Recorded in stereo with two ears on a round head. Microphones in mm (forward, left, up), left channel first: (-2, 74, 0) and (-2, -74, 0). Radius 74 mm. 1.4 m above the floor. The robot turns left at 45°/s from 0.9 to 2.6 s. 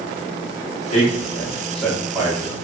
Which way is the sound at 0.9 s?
45° left (ahead or behind).